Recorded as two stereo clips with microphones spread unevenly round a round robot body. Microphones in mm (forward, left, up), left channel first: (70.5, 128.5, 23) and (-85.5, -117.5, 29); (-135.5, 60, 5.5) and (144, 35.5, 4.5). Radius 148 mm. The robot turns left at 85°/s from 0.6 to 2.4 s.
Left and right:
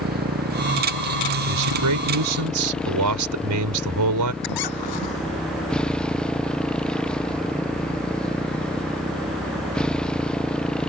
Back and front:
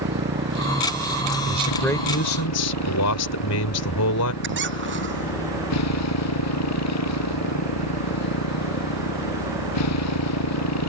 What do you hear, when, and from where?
0.0 s a motorcycle: 60° right; by 10.9 s 145° left
1.4 s a man speaking: 65° right; by 4.3 s 145° right
4.4 s a squeak: 45° left